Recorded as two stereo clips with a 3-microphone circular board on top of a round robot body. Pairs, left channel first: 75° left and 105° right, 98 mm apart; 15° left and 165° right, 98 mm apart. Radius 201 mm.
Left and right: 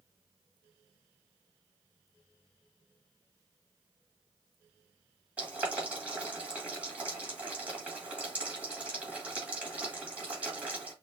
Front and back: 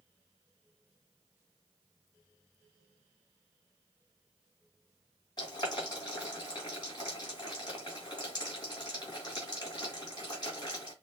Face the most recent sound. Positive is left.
turn(degrees=-30)